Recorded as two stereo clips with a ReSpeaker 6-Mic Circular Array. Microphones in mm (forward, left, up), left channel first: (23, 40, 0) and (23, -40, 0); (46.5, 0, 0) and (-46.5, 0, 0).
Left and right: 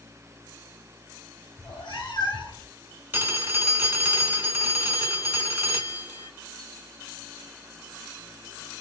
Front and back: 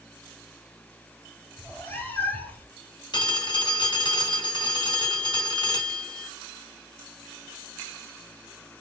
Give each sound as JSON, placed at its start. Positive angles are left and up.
{"t": 1.6, "sound": "a cat meowing", "azimuth_deg": 70, "distance_m": 2.0}
{"t": 3.1, "sound": "a phone ringing", "azimuth_deg": -25, "distance_m": 1.7}